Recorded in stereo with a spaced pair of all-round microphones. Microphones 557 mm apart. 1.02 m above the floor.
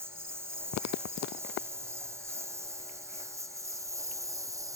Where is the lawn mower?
5° right (ahead or behind).